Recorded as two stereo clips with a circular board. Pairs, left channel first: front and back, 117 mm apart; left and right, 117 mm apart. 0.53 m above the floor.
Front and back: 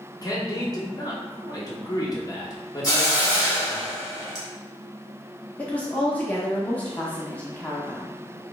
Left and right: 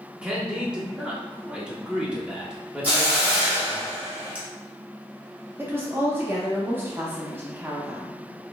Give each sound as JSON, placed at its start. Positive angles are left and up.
{"t": 0.2, "sound": "a man speaking", "azimuth_deg": -15, "distance_m": 0.9}
{"t": 2.8, "sound": "a hiss", "azimuth_deg": -25, "distance_m": 1.2}
{"t": 5.6, "sound": "a woman speaking", "azimuth_deg": -55, "distance_m": 0.7}